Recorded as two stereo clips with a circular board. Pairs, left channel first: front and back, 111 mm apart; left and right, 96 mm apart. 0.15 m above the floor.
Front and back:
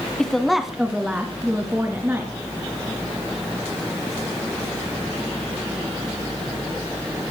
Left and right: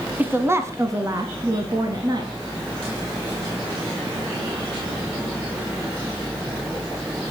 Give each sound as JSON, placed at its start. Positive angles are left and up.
{"t": 0.2, "sound": "a woman speaking", "azimuth_deg": -75, "distance_m": 1.3}